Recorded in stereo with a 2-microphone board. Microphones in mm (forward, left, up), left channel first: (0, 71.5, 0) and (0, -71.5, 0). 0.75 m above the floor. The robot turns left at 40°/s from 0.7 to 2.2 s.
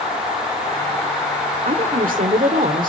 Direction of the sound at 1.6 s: 75° right (ahead or behind).